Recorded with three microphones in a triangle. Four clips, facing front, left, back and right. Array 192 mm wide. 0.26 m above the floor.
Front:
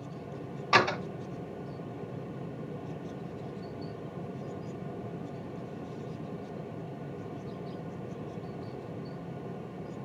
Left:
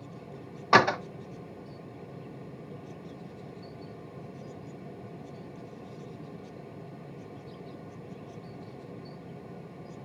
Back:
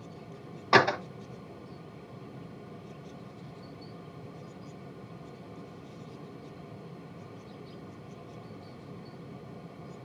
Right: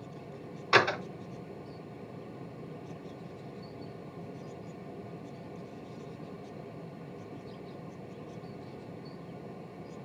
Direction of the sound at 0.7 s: 115° left.